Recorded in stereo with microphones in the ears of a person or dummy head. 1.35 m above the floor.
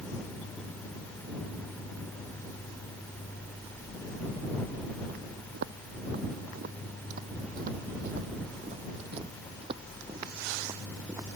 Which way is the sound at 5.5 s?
60° right (ahead or behind).